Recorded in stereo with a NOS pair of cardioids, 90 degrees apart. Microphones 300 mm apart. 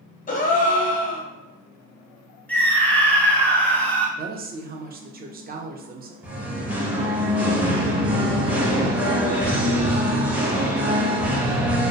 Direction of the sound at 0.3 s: 30° left.